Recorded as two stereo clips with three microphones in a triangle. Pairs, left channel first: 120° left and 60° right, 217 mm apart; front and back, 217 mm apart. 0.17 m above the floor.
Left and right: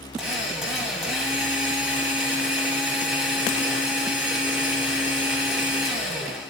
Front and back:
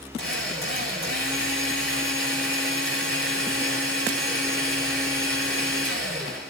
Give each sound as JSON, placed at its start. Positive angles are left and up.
{"t": 0.2, "sound": "a drill", "azimuth_deg": 30, "distance_m": 8.0}